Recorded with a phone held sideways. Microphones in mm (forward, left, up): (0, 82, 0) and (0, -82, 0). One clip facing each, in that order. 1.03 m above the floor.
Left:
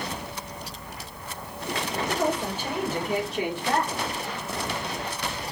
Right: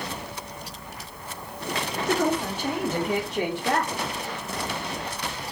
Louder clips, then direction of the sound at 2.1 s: Right 4 dB; 65° right (ahead or behind).